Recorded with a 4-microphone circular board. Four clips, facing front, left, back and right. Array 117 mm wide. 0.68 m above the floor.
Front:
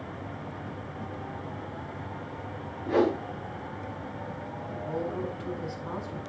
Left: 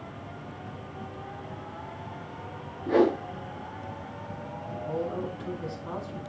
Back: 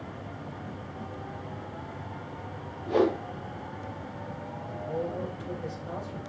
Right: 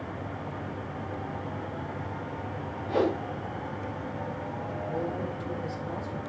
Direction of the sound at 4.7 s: 40° left.